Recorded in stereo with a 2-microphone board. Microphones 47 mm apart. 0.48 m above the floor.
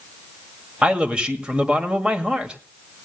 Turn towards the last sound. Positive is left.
turn(degrees=-20)  # may be behind; listen again after turning